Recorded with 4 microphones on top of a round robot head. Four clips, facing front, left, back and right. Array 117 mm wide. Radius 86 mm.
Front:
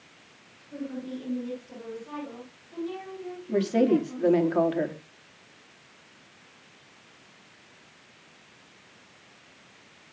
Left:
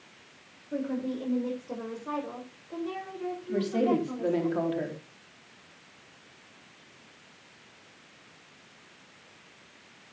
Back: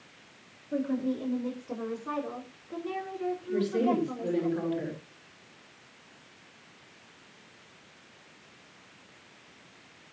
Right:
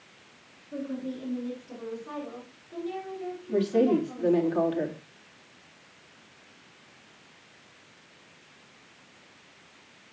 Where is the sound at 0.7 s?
130° left, 6.5 m; by 4.5 s 145° left, 9 m.